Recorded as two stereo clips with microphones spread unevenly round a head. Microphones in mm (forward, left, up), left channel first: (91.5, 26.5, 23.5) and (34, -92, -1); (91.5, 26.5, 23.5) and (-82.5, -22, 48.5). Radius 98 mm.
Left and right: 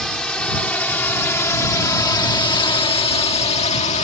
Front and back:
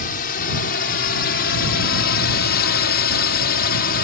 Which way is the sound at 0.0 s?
25° right.